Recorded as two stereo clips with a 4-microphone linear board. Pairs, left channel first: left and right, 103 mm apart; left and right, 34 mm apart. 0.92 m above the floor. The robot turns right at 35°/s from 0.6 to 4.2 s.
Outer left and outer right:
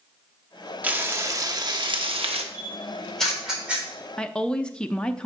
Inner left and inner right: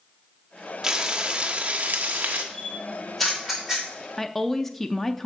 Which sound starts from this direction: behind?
Frying, at 0.8 s.